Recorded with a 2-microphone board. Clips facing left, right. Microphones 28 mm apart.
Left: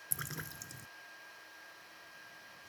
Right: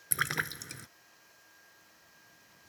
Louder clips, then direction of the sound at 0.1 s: Right 13 dB; 65° right (ahead or behind).